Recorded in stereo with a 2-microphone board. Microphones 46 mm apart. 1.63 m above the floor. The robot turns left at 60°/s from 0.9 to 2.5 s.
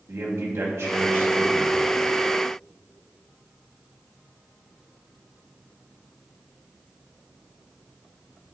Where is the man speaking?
105° right, 2 m; by 1.8 s 165° right, 2 m.